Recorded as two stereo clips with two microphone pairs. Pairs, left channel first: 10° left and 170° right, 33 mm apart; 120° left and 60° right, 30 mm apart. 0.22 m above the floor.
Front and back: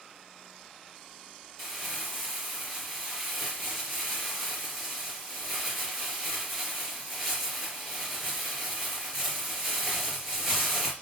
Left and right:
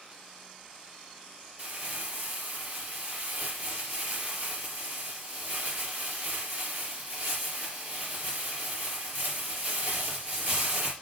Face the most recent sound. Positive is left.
turn(degrees=-90)